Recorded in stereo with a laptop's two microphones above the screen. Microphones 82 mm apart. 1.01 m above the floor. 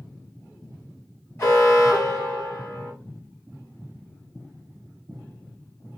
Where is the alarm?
35° left (ahead or behind), 1.8 m.